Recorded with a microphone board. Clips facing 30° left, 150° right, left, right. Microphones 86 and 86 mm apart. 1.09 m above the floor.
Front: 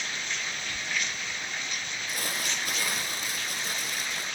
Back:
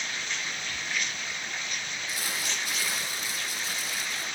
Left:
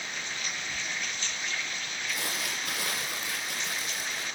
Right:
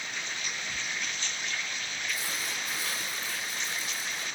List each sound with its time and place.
2.1 s crumpling: 65° left, 8.5 m